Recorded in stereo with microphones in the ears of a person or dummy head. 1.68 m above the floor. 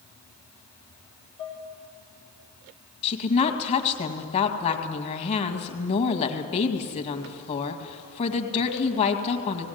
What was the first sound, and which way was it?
Dishes clattering, 30° left (ahead or behind).